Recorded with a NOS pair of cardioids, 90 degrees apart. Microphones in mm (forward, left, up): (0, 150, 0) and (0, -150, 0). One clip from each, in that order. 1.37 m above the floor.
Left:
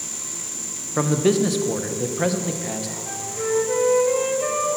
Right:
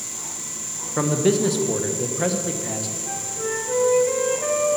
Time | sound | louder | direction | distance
1.0 | a man speaking | even | 10° left | 1.2 m
3.1 | a flute | left 4 dB | 15° left | 1.9 m